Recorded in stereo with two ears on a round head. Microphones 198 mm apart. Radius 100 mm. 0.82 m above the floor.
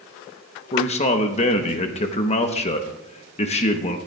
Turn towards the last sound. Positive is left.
turn(degrees=30)  # may be behind; listen again after turning